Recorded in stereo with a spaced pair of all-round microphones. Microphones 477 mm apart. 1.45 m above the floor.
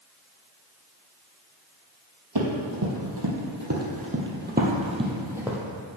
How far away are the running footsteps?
About 2.5 m.